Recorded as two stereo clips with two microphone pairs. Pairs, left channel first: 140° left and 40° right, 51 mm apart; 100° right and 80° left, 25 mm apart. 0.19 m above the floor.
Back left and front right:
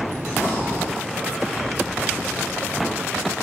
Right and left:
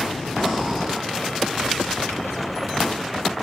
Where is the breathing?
5° left, 1.9 m.